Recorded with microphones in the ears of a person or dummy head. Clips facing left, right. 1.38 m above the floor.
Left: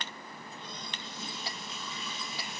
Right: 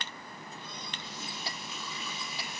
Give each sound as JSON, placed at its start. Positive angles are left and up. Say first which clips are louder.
{"t": 0.3, "sound": "a running tap", "louder": "even", "side_deg": -10, "distance_m": 7.5}